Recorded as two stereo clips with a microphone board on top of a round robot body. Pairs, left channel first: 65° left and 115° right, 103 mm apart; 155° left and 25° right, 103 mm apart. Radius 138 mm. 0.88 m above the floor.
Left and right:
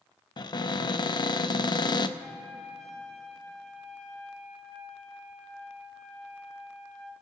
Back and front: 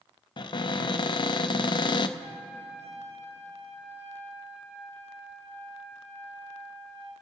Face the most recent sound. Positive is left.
turn(degrees=-20)